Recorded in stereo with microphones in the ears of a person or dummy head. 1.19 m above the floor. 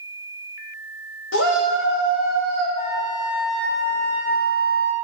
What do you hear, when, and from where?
1.3 s a shout: 65° left (ahead or behind), 1.7 m
2.8 s a flute: 50° left (ahead or behind), 1.6 m